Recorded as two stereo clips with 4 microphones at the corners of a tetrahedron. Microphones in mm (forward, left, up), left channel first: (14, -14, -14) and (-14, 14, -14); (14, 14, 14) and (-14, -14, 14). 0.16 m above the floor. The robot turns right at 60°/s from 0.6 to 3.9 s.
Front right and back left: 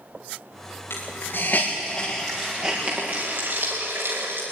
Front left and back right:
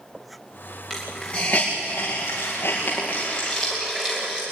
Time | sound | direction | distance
0.9 | a hiss | 35° right | 6.5 m